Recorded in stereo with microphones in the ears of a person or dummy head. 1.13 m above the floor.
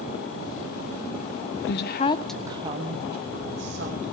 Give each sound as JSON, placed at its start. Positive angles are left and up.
{"t": 1.6, "sound": "a woman speaking", "side_deg": 55, "distance_m": 0.7}